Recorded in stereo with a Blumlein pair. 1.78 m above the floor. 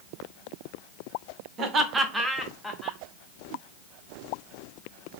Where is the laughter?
30° right, 0.8 m; by 3.0 s 15° left, 1.1 m.